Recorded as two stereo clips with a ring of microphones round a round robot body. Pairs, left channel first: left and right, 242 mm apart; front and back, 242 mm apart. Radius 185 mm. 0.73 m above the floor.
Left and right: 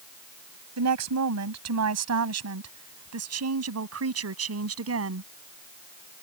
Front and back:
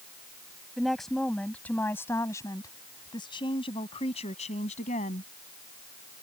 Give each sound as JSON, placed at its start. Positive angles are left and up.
{"t": 0.8, "sound": "a woman speaking", "azimuth_deg": -90}